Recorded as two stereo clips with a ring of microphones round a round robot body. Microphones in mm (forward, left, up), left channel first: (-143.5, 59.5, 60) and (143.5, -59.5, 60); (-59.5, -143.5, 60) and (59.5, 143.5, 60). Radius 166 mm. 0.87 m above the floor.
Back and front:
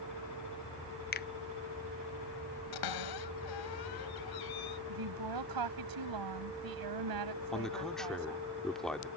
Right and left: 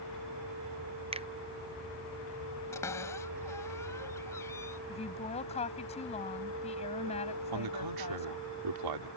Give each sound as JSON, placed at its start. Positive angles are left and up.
{"t": 1.1, "sound": "a finger snap", "azimuth_deg": 125}
{"t": 2.7, "sound": "a cupboard door", "azimuth_deg": 165}
{"t": 4.9, "sound": "a woman speaking", "azimuth_deg": -40}
{"t": 7.5, "sound": "a man speaking", "azimuth_deg": 70}